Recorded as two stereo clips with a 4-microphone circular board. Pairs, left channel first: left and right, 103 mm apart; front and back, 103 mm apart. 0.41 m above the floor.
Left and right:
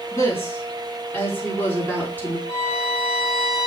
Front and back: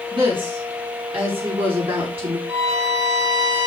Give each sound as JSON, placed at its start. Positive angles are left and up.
{"t": 0.1, "sound": "a woman speaking", "azimuth_deg": 150, "distance_m": 5.0}
{"t": 2.5, "sound": "a violin", "azimuth_deg": 110, "distance_m": 4.5}